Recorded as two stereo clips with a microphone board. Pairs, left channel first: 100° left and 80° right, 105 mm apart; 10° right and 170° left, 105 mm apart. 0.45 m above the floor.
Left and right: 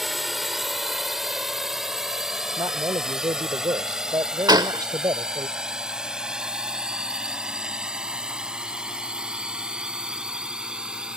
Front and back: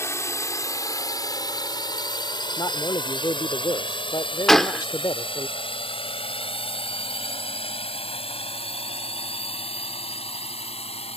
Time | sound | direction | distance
0.0 | a drone | 10° left | ?
2.6 | a man speaking | 50° right | ?
4.5 | a gunshot | 95° right | ?